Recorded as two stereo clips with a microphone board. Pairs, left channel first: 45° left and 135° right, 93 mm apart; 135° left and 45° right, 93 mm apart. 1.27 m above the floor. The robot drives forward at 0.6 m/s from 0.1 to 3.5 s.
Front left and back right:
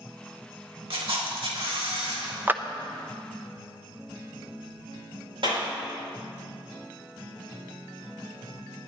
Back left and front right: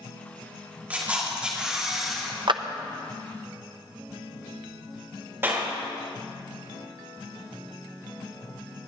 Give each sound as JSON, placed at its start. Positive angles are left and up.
{"t": 0.9, "sound": "a camera shutter", "azimuth_deg": -115, "distance_m": 2.0}
{"t": 2.5, "sound": "a clap", "azimuth_deg": -65, "distance_m": 0.6}
{"t": 5.4, "sound": "a clap", "azimuth_deg": -110, "distance_m": 4.0}